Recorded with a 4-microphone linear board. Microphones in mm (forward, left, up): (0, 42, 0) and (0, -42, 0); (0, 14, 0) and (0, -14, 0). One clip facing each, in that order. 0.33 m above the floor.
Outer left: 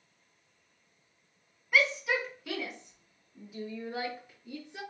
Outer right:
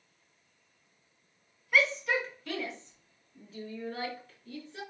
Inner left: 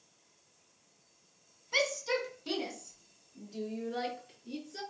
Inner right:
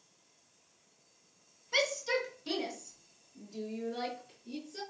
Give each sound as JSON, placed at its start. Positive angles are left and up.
{"t": 1.7, "sound": "a shout", "side_deg": 5, "distance_m": 3.0}